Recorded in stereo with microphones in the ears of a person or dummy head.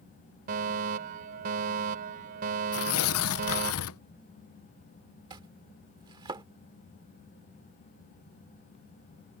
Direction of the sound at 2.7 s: 80° left.